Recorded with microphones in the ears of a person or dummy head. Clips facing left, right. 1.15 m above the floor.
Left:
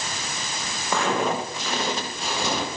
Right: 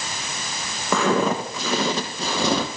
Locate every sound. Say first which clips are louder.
0.9 s footsteps: right 4 dB; 70° right (ahead or behind), 3 m; by 2.7 s 60° right (ahead or behind), 2.5 m